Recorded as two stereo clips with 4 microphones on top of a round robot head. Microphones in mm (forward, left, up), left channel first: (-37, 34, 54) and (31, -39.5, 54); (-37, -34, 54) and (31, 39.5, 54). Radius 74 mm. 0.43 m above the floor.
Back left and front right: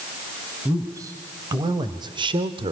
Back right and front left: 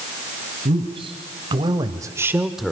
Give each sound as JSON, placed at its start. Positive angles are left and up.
{"t": 0.7, "sound": "a man speaking", "azimuth_deg": 15, "distance_m": 3.0}